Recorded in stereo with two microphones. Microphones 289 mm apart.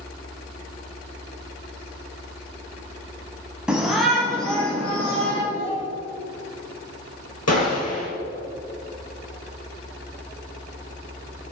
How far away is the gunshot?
About 3 m.